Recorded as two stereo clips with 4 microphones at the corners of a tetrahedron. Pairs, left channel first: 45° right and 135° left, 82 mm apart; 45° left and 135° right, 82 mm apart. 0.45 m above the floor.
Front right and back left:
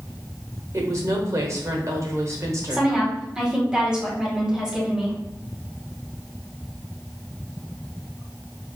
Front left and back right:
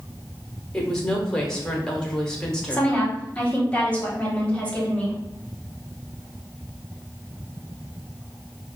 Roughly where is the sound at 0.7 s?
Behind left.